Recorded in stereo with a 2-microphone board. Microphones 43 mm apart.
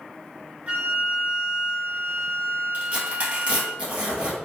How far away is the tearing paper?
About 1.9 m.